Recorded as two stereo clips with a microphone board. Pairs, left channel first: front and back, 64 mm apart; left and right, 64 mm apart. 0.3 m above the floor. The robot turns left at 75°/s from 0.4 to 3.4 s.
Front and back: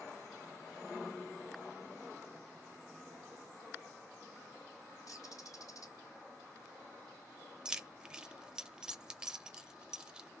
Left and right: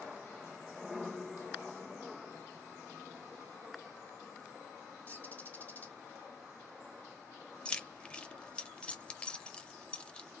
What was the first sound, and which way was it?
A bird, 30° left.